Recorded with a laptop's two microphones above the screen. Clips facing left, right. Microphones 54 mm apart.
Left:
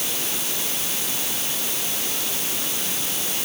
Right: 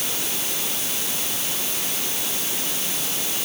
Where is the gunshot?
I don't hear a gunshot.